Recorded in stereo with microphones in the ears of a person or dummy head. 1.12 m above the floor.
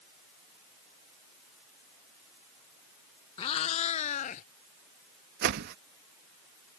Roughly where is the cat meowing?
Left.